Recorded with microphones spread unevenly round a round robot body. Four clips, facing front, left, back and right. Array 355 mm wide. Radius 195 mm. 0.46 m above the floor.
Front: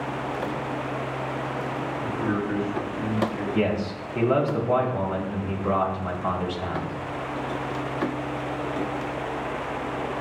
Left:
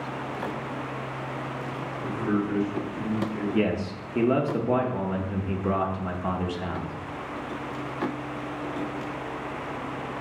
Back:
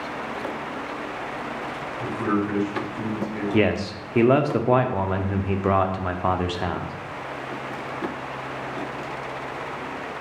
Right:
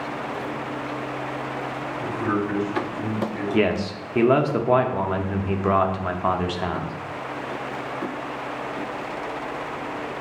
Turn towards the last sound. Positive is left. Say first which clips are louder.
# right 5 dB, back 5 dB
turn(degrees=-160)